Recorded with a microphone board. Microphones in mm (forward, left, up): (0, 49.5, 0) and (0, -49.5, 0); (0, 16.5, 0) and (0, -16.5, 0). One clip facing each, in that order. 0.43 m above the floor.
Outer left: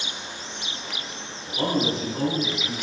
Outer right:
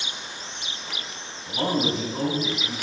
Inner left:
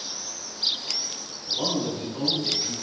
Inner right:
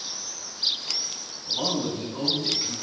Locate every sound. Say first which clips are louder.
1.5 s a man speaking: even, even; 25° right (ahead or behind), 4 m; by 2.7 s 10° right (ahead or behind), 4 m